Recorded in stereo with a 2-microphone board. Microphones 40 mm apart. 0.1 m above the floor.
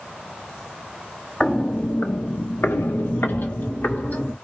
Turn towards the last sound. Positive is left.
turn(degrees=50)  # may be behind; listen again after turning